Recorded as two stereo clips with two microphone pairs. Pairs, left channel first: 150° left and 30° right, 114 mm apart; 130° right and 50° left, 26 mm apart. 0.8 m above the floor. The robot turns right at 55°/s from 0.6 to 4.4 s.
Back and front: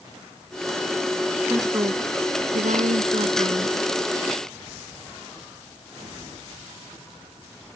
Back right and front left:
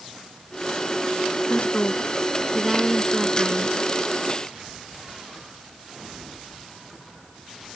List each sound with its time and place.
1.5 s a woman speaking: 100° right; by 3.8 s 25° left